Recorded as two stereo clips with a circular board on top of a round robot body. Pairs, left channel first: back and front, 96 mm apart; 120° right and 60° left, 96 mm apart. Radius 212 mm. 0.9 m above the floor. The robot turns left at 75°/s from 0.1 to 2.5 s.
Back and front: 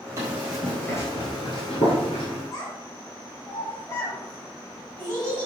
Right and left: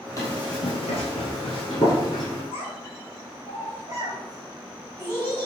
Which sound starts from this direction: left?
A child speaking, at 2.5 s.